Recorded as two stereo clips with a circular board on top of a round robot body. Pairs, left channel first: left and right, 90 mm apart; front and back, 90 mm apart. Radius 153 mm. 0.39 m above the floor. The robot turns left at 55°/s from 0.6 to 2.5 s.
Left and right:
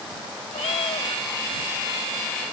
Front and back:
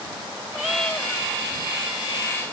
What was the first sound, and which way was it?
A cat meowing, 95° left.